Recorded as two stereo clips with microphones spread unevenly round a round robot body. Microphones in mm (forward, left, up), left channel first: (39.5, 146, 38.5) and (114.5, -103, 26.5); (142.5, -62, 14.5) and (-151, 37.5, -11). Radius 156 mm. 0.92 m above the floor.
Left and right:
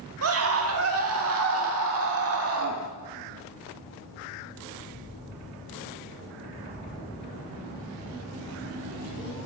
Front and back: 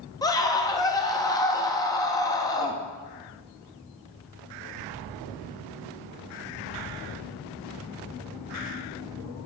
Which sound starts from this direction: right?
A scream, at 0.2 s.